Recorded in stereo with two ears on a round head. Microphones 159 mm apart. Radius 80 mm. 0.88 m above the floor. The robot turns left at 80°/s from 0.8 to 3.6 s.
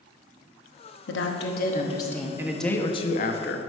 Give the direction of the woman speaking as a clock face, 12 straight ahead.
9 o'clock.